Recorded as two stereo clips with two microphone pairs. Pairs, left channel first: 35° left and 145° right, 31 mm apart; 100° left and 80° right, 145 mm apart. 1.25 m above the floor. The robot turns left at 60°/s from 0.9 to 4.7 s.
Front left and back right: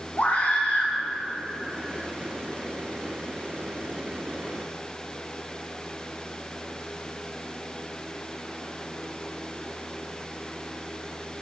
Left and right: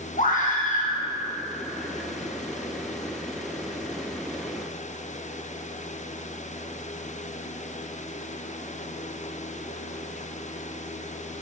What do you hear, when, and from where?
0.2 s a scream: 75° left, 1.8 m